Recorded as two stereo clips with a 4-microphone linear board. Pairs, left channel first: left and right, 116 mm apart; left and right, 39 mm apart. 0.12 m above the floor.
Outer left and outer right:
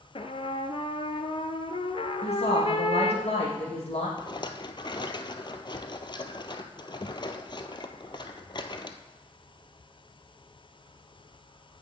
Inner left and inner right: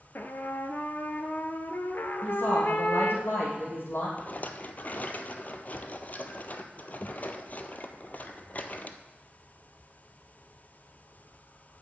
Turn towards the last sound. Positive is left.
turn(degrees=40)  # may be behind; listen again after turning